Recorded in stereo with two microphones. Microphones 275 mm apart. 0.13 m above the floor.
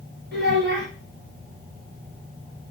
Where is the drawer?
No drawer in this recording.